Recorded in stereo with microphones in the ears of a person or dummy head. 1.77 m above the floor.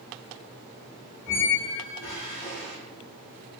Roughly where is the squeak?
Left.